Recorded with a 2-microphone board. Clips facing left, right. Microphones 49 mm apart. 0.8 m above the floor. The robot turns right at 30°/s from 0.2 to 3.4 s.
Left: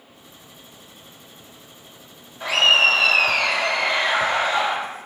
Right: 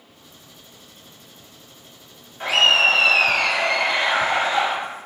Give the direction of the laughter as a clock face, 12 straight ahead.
3 o'clock.